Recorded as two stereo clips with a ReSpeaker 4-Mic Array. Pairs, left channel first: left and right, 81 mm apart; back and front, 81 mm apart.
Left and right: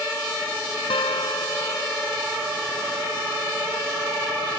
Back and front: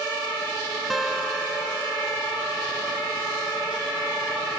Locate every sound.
0.9 s a guitar: 90° left